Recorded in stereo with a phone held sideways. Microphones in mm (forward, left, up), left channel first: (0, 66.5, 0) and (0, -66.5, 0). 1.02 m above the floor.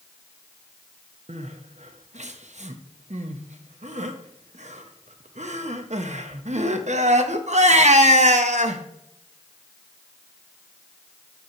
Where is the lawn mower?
No lawn mower in this recording.